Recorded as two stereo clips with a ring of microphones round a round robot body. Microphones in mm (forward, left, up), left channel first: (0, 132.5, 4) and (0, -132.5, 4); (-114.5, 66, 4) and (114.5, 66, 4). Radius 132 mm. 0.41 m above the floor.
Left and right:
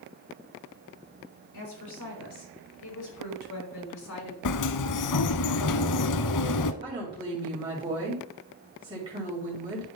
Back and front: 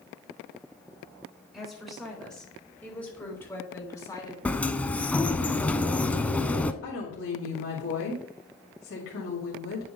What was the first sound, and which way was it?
A woman speaking, 90° left.